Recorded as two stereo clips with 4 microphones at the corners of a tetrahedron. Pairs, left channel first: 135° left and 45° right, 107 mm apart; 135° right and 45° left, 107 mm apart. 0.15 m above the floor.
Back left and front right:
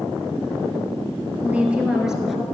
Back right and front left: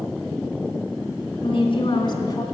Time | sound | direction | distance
1.4 | a woman speaking | 120° right | 2.5 m